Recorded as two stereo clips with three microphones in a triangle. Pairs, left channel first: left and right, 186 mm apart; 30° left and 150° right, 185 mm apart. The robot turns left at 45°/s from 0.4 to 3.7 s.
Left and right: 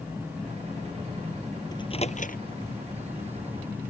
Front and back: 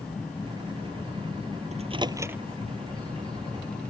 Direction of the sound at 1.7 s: 160° left.